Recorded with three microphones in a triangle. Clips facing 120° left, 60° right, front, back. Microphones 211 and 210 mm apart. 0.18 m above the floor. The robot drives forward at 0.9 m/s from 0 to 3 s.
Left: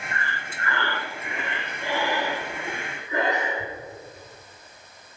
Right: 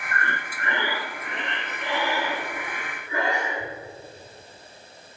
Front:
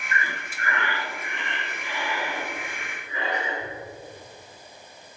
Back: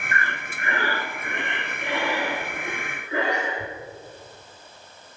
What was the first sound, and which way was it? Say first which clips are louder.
Breathing: right 5 dB, back 1 dB; 60° right.